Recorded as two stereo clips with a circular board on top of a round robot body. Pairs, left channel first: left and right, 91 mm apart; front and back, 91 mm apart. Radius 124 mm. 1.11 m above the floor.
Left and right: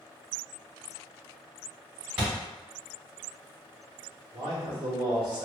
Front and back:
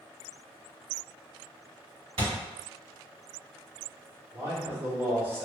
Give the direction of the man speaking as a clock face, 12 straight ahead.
4 o'clock.